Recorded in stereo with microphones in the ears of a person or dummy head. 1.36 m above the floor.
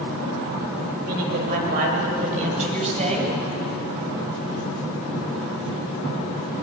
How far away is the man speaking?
About 5.5 m.